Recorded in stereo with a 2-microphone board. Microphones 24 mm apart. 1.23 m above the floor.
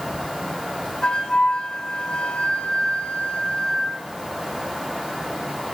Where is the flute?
35° left (ahead or behind), 1.2 m.